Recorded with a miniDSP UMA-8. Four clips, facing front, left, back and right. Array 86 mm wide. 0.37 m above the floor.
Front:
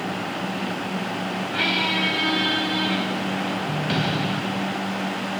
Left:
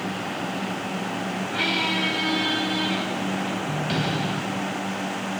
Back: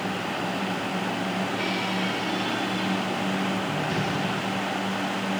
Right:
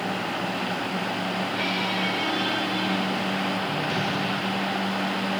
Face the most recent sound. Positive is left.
turn(degrees=25)